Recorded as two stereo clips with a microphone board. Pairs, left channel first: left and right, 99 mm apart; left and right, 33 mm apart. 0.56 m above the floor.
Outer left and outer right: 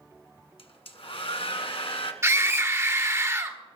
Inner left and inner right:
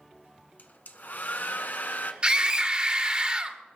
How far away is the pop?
No pop in this recording.